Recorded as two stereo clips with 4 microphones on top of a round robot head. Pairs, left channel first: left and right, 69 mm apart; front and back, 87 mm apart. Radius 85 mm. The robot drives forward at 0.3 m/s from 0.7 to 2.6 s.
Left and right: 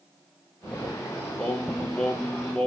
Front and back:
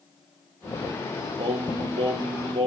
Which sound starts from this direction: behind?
Singing, at 1.4 s.